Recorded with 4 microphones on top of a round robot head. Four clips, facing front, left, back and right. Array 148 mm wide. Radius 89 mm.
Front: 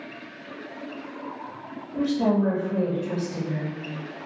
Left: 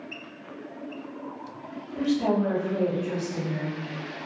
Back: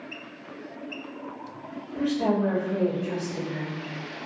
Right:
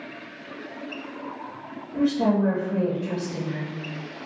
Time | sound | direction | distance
1.9 | a woman speaking | 55° right | 1.2 m